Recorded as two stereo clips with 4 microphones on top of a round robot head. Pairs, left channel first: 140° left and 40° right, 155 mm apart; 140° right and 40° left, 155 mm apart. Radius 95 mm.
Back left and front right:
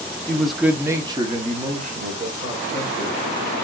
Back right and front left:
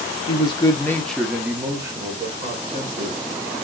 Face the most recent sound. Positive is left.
turn(degrees=-10)